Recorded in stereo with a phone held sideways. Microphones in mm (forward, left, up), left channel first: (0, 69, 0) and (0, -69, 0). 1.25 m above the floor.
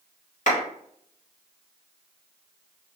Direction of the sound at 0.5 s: 70° left (ahead or behind).